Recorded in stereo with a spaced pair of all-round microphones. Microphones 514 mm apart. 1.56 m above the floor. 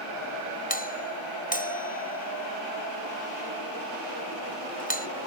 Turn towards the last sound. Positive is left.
turn(degrees=15)  # may be behind; listen again after turning